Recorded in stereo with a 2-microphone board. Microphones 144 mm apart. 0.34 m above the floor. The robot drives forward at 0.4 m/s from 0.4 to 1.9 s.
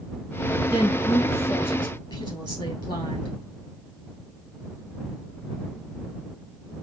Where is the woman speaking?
30° left (ahead or behind), 2.5 m; by 3.3 s 25° left (ahead or behind), 2.5 m.